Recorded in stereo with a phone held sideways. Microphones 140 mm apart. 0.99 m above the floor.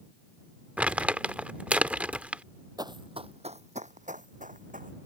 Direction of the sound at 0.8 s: 10° right (ahead or behind).